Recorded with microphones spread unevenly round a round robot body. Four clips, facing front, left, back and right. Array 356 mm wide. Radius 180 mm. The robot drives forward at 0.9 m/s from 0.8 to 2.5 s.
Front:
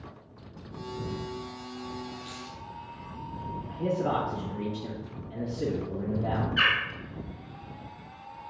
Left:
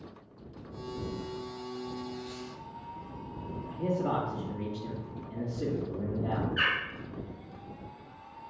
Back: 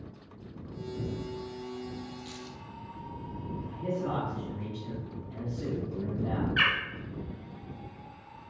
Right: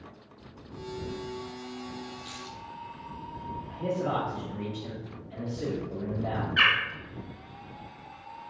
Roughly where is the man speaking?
Ahead left.